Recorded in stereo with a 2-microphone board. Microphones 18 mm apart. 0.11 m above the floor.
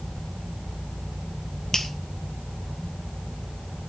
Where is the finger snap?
40° left (ahead or behind), 1.7 m.